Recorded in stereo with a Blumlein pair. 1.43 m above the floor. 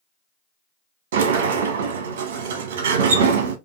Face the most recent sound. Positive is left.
turn(degrees=-55)